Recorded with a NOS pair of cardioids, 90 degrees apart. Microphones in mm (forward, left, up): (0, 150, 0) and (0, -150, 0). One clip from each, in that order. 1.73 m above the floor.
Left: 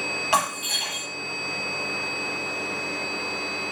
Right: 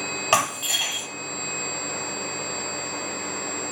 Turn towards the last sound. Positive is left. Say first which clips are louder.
# right 3 dB
turn(degrees=-40)